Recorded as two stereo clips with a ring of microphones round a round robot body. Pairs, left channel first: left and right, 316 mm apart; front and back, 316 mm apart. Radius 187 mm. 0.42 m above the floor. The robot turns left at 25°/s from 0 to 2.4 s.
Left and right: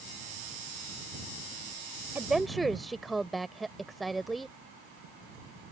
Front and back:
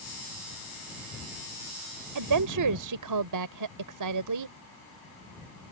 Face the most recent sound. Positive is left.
turn(degrees=180)